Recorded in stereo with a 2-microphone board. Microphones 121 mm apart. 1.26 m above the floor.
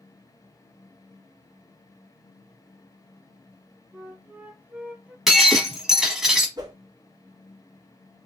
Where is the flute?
15° right (ahead or behind), 0.6 m.